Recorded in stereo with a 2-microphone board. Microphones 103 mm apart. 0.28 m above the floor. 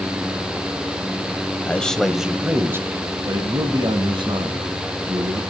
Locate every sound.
1.7 s a man speaking: 15° left (ahead or behind), 1.1 m; by 5.4 s 60° right (ahead or behind), 2.5 m